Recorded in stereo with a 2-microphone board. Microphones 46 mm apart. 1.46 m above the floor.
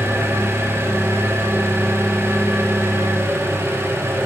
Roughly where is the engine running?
Right.